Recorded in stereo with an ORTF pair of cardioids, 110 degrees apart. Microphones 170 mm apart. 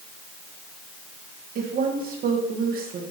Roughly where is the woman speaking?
Ahead right.